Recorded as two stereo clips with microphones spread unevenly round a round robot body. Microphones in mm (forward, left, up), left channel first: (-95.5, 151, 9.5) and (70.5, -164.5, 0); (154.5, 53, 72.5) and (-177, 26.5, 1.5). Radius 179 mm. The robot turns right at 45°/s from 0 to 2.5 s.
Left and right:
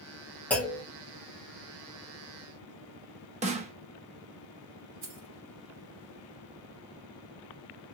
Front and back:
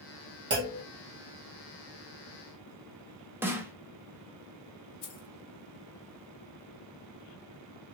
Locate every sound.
0.5 s a clunk: 155° right, 1.4 m; by 0.8 s 140° right, 1.4 m
3.4 s a snare drum: 115° right, 0.6 m
5.0 s keys jangling: 15° right, 1.6 m